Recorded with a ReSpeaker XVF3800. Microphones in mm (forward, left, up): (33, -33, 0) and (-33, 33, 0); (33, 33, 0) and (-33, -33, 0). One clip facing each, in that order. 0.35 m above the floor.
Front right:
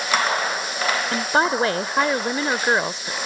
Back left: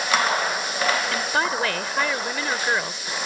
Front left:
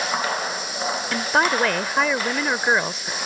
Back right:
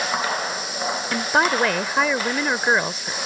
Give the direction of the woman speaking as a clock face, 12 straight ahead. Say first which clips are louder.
Front right 4 dB, even; 2 o'clock.